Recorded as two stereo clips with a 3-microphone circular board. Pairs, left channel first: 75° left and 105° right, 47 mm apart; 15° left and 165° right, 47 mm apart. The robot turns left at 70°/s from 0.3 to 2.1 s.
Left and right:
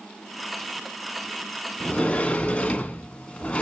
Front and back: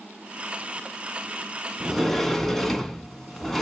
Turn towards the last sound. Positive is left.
turn(degrees=90)